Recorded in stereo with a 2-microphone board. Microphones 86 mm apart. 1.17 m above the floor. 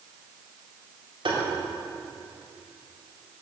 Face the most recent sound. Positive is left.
turn(degrees=-80)